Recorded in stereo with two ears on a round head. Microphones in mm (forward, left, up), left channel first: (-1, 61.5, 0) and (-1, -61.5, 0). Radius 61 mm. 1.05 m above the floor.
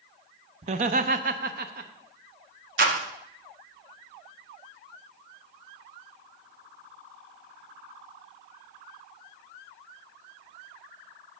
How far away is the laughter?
About 0.7 m.